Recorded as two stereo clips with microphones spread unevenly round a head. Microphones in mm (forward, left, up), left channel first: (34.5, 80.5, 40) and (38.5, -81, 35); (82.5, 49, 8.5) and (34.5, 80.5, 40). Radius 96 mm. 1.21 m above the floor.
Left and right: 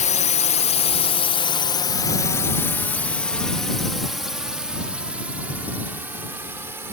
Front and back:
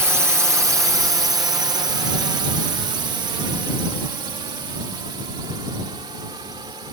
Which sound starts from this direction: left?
A drone, at 0.0 s.